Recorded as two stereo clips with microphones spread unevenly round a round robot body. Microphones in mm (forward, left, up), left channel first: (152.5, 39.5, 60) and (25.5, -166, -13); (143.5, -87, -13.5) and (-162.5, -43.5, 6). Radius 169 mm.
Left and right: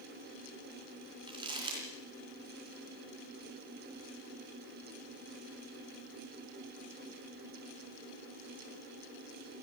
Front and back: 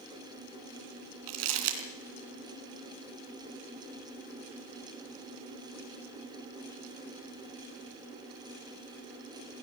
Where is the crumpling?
160° left, 3 m.